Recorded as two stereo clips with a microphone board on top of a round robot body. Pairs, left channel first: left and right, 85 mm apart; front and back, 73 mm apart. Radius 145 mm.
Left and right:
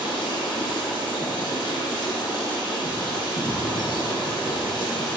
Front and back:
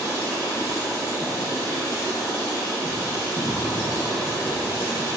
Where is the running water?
50° left, 1.3 m.